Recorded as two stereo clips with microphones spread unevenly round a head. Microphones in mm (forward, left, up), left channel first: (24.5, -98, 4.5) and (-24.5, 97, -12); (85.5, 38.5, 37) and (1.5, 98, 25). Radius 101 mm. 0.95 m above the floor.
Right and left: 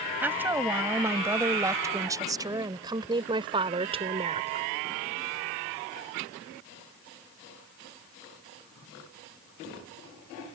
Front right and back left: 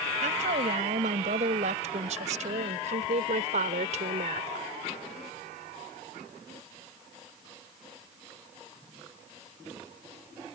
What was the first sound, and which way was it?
A woman speaking, 175° right.